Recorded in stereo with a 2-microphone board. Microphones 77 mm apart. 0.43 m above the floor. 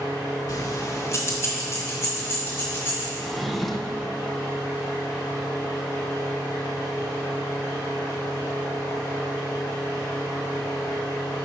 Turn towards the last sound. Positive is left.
turn(degrees=0)  # may be behind; listen again after turning